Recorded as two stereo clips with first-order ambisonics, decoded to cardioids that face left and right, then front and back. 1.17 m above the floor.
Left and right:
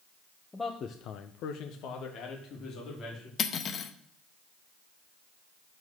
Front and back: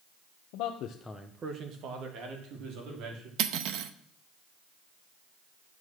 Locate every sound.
0.5 s a man speaking: 5° left, 0.9 m; by 3.3 s 145° left, 3.5 m
3.4 s cutlery clinking: 150° left, 0.7 m